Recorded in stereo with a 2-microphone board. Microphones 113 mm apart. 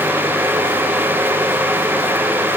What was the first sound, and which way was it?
Only background noise.